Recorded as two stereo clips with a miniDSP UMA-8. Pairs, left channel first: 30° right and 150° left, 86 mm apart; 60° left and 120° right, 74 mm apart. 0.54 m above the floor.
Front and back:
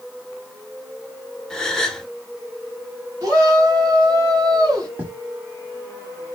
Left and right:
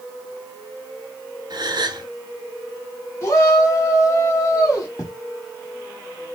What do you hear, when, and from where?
1.5 s a gasp: 115° right, 0.7 m
3.2 s a shout: 105° left, 2 m
5.0 s writing: 85° left, 1.3 m